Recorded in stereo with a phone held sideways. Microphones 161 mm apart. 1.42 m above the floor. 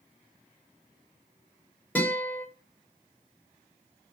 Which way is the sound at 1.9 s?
10° left (ahead or behind).